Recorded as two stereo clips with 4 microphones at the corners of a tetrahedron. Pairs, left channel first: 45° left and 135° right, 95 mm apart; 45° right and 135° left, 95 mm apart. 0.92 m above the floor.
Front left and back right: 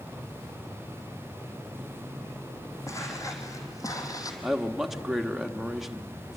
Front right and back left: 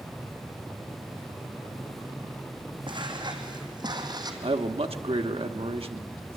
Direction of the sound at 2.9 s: 100° left.